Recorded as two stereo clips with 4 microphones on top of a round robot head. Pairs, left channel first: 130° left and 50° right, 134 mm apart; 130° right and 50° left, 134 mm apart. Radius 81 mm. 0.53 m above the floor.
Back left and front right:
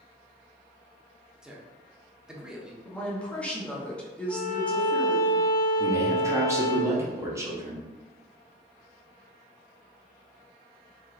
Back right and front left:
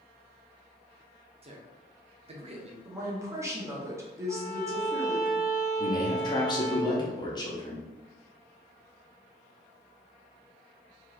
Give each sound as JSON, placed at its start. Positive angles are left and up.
{"t": 1.4, "sound": "a man speaking", "azimuth_deg": 35, "distance_m": 1.0}
{"t": 2.8, "sound": "a woman speaking", "azimuth_deg": 65, "distance_m": 1.2}
{"t": 4.3, "sound": "a violin", "azimuth_deg": -170, "distance_m": 1.7}
{"t": 5.8, "sound": "a man speaking", "azimuth_deg": -105, "distance_m": 1.3}